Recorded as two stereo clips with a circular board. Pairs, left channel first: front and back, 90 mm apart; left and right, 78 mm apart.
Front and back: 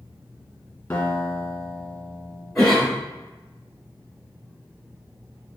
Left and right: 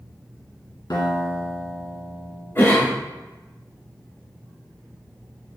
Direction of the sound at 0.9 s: 70° left.